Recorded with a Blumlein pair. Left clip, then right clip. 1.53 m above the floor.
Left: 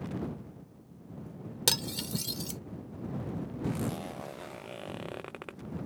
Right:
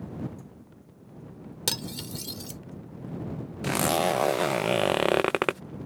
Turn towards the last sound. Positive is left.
turn(degrees=-40)